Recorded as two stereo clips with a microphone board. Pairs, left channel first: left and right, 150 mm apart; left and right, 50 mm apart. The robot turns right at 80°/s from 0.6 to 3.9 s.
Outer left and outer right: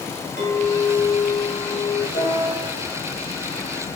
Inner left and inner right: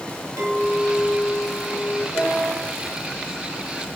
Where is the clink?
70° right, 2.5 m; by 2.0 s 45° left, 2.5 m.